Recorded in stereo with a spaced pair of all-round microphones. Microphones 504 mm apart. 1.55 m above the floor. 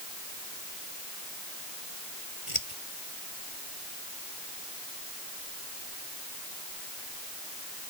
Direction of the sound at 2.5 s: 80° left.